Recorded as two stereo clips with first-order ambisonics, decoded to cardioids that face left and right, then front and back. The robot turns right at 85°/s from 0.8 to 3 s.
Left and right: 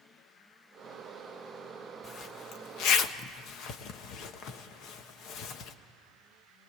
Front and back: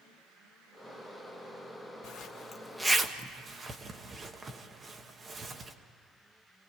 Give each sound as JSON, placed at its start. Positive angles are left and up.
{"t": 2.0, "sound": "a zipper", "azimuth_deg": 30, "distance_m": 1.1}